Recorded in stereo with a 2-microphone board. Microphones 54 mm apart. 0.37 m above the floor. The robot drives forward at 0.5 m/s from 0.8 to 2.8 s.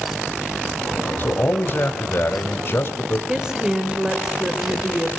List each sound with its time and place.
1.2 s a man speaking: 40° left (ahead or behind), 2 m; by 3.2 s 50° left (ahead or behind), 1.7 m
3.3 s a woman speaking: 15° right (ahead or behind), 1.7 m